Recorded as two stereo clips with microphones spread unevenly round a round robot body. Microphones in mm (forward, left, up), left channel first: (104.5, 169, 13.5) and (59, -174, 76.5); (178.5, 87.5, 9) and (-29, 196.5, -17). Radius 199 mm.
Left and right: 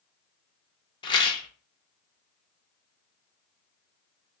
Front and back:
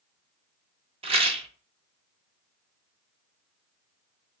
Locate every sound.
1.0 s a rattle: 125° left, 0.7 m